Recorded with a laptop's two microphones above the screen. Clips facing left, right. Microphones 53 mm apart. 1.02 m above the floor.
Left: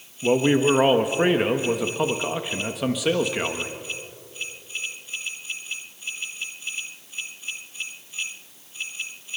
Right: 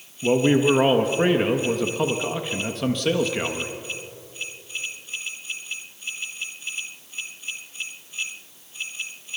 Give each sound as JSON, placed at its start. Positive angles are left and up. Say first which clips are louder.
{"t": 0.2, "sound": "a man speaking", "louder": "right 1 dB", "side_deg": 10, "distance_m": 1.3}